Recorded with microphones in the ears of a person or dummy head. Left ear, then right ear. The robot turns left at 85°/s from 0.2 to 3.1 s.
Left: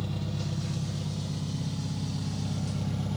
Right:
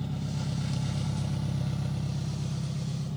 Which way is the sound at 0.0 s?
10° left.